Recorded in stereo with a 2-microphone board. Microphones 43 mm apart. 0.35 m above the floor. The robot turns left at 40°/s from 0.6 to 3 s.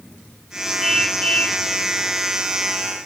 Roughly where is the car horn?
Behind.